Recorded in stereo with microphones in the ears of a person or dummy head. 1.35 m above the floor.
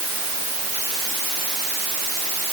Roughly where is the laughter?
No laughter in this recording.